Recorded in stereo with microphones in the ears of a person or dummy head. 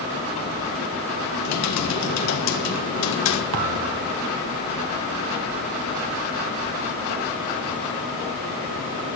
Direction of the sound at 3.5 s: 50° right (ahead or behind).